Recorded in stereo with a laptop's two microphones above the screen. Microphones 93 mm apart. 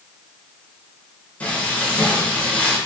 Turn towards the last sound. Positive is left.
turn(degrees=20)  # may be behind; listen again after turning